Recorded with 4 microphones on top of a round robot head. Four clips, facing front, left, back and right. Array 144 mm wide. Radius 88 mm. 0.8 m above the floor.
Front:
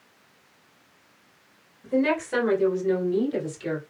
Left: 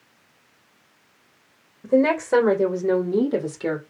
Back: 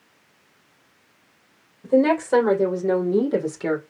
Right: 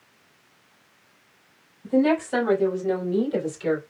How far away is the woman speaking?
About 3 m.